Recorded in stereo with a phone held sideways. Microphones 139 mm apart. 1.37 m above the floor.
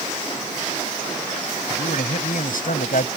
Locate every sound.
1.7 s a man speaking: 85° left; by 3.1 s 75° left (ahead or behind)